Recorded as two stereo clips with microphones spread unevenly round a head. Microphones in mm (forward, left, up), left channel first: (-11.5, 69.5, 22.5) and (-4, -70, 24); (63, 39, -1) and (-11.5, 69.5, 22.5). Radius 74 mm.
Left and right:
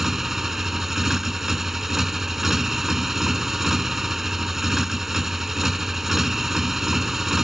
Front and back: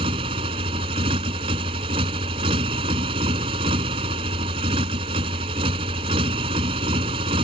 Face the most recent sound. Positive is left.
turn(degrees=-175)